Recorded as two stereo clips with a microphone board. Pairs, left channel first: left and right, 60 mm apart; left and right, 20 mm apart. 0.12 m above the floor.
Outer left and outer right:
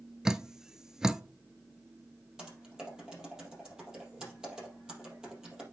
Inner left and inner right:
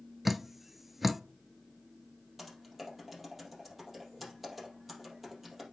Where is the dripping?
10° right (ahead or behind), 0.5 m.